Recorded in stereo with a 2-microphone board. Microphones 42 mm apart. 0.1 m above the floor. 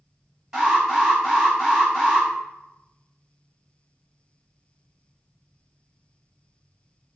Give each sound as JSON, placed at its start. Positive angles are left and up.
{"t": 0.5, "sound": "an alarm", "side_deg": -10, "distance_m": 1.4}